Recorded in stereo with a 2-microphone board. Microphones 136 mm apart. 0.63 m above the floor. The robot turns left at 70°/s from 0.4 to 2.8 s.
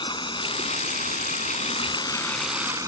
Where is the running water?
145° left; by 2.9 s 25° right.